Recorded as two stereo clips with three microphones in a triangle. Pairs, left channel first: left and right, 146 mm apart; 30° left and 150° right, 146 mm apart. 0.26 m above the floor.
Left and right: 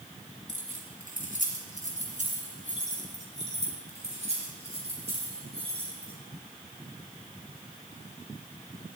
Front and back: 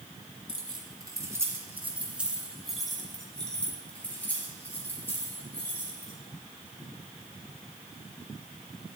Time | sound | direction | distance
0.5 | keys jangling | 100° right | 1.9 m